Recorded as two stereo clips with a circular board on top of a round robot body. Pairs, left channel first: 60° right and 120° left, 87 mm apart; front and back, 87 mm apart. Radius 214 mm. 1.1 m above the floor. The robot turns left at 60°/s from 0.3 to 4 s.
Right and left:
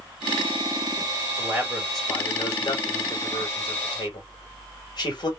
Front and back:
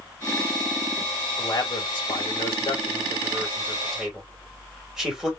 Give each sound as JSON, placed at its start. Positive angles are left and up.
{"t": 1.4, "sound": "a man speaking", "azimuth_deg": 60, "distance_m": 3.0}